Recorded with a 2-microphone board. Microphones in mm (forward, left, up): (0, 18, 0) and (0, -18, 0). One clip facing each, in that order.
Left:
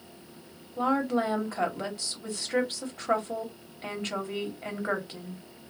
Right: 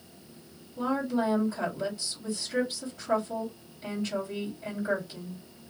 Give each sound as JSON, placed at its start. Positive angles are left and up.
{"t": 0.8, "sound": "a woman speaking", "side_deg": 55, "distance_m": 1.6}